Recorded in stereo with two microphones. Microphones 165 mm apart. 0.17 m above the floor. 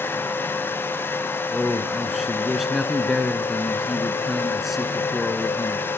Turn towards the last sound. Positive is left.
turn(degrees=0)  # may be behind; listen again after turning